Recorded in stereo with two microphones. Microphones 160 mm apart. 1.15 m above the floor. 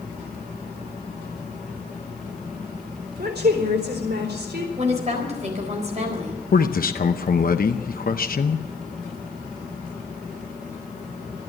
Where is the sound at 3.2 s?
75° right (ahead or behind), 4 m.